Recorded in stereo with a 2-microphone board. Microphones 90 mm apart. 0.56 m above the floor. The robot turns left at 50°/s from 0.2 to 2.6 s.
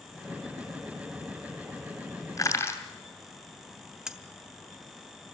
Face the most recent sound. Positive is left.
turn(degrees=-5)  # may be behind; listen again after turning